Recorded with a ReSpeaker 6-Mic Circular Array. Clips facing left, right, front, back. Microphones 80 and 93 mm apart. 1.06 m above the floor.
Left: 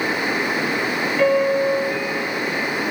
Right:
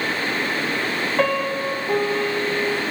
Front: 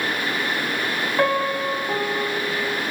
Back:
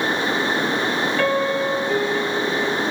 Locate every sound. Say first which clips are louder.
1.2 s a piano: left 6 dB, front 1 dB; 60° right, 1.9 m